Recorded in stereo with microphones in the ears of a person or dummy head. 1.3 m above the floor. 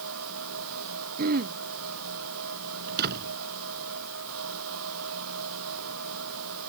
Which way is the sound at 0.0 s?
75° right (ahead or behind).